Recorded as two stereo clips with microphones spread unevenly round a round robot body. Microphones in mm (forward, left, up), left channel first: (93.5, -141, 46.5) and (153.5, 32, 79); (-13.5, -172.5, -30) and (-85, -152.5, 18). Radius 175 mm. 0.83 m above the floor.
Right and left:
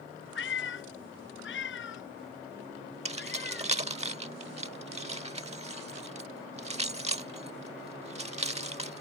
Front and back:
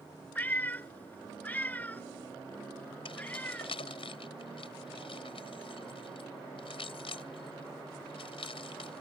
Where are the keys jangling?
15° left.